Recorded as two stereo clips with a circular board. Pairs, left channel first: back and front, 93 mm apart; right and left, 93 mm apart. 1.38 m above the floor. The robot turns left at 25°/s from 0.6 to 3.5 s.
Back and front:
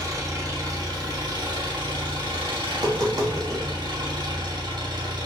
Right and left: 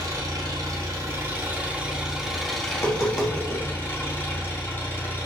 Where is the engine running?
45° left, 3.5 m; by 5.3 s 25° right, 3.5 m.